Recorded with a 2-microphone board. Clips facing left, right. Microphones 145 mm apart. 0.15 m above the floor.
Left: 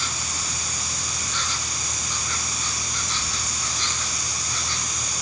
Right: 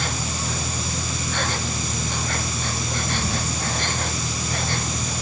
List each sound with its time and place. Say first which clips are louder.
0.0 s an insect: right 6 dB; 55° right (ahead or behind)